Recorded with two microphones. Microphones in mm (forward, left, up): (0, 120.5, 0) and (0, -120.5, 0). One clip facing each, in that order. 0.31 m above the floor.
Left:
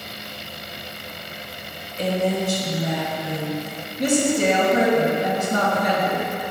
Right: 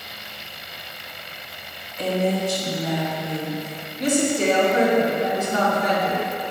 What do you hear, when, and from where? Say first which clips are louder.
2.0 s a woman speaking: even; 30° left (ahead or behind), 1.2 m; by 3.8 s 60° left (ahead or behind), 3 m
4.0 s a woman speaking: left 1 dB; 50° left (ahead or behind), 1.9 m